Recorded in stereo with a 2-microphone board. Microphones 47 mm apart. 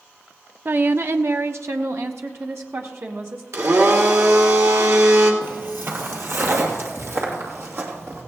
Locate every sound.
0.7 s a woman speaking: 45° right (ahead or behind), 0.5 m; by 3.4 s 70° right (ahead or behind), 1.8 m
3.5 s a blender: 80° right, 2.5 m
5.4 s footsteps: 50° right (ahead or behind), 1.7 m; by 8.2 s 70° right (ahead or behind), 3 m